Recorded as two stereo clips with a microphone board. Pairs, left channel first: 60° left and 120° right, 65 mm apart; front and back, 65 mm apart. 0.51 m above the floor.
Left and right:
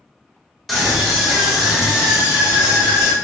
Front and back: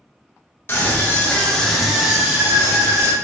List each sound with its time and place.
0.7 s a scream: 30° right, 0.9 m; by 3.1 s 165° left, 1.0 m